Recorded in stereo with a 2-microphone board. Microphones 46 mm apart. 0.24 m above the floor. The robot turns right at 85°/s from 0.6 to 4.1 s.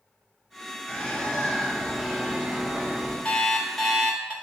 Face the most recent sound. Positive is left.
turn(degrees=-150)